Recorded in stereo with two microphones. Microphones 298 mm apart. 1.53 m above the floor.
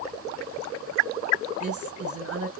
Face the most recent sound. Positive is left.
turn(degrees=-50)  # may be behind; listen again after turning